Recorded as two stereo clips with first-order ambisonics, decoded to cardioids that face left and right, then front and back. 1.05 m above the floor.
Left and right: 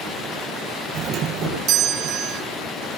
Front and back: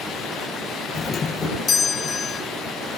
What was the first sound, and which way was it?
A doorbell, 60° right.